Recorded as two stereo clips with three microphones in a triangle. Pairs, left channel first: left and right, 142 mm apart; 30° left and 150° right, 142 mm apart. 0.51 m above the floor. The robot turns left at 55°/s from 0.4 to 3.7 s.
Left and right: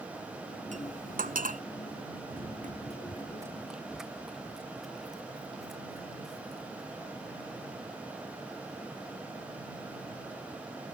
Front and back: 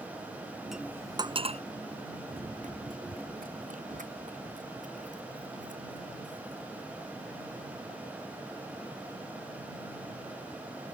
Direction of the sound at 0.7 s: 60° right.